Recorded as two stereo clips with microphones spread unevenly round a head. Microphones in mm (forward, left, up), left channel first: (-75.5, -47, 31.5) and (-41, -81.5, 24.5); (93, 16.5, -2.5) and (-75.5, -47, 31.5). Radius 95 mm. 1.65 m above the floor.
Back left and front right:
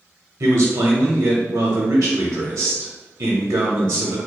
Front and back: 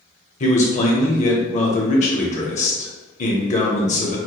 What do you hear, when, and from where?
0.4 s a man speaking: 30° right, 1.0 m